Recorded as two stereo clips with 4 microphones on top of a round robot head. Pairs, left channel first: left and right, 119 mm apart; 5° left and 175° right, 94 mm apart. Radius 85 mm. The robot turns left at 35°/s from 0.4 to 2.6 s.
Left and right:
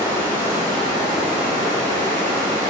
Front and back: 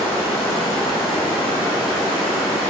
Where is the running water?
20° right, 1.7 m; by 2.7 s 95° right, 1.7 m.